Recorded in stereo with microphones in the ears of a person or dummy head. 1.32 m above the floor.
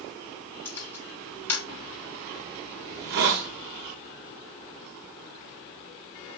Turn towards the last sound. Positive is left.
turn(degrees=-50)  # may be behind; listen again after turning